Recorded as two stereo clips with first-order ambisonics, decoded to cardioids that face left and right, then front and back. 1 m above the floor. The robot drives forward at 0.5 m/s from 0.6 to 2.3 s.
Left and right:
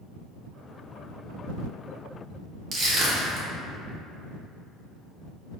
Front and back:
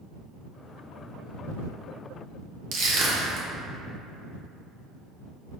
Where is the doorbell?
No doorbell in this recording.